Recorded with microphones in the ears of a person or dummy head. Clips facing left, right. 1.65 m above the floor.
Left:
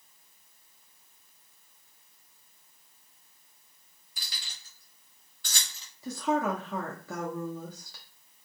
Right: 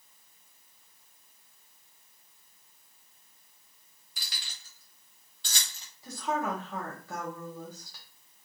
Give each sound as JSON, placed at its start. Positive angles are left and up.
{"t": 4.2, "sound": "keys jangling", "side_deg": -60, "distance_m": 1.2}
{"t": 6.0, "sound": "a woman speaking", "side_deg": 65, "distance_m": 0.6}